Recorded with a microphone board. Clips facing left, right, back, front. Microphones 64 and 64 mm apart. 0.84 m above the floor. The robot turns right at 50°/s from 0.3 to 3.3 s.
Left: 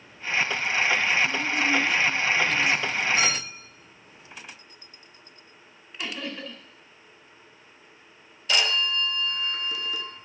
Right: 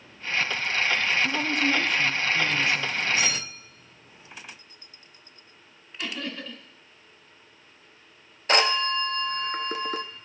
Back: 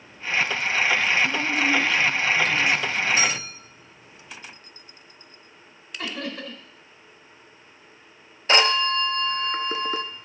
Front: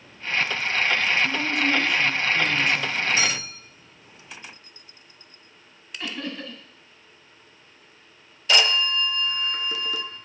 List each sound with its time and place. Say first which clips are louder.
1.2 s a woman speaking: even, back 1 dB; 105° right, 1.6 m; by 3.0 s 20° right, 1.6 m
3.2 s a clink: left 2 dB, back 1 dB; 125° left, 7.5 m; by 3.4 s 135° left, 7.5 m
6.0 s laughter: even, back 1 dB; 165° left, 4 m
8.5 s a phone ringing: right 3 dB, back 2 dB; 130° right, 0.7 m